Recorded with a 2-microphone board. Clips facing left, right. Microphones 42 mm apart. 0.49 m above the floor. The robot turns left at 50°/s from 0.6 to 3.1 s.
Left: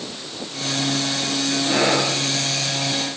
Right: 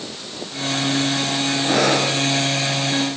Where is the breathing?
80° right, 8 m; by 2.1 s 55° right (ahead or behind), 8 m.